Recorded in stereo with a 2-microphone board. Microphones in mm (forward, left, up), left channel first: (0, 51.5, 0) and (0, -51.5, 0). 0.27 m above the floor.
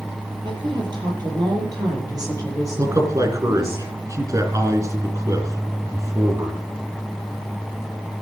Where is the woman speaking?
50° right (ahead or behind), 6.5 m; by 3.8 s 25° right (ahead or behind), 7 m.